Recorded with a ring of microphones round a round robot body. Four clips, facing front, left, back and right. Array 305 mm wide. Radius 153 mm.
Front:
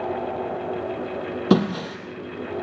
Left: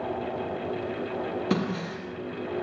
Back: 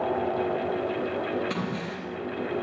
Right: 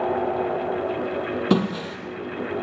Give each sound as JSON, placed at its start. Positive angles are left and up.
{"t": 1.5, "sound": "breaking glass", "azimuth_deg": -25, "distance_m": 4.0}